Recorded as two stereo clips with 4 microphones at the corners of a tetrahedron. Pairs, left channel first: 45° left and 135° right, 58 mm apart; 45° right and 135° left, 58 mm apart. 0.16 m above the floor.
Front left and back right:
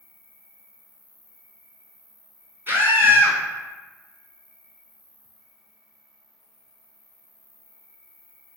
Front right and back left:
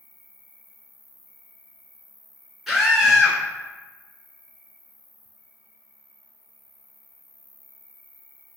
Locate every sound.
0.0 s an insect: 70° left, 0.8 m
2.7 s a scream: 140° right, 1.8 m